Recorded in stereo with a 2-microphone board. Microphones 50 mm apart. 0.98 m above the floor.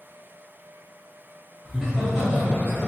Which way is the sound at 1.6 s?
5° right (ahead or behind).